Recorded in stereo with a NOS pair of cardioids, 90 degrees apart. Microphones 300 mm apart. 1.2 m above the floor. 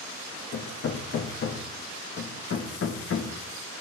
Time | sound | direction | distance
0.5 | hammering | 45° left | 1.1 m